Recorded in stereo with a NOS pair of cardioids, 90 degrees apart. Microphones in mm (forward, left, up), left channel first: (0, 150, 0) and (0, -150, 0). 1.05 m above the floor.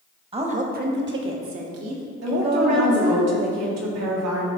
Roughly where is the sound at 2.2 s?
Ahead right.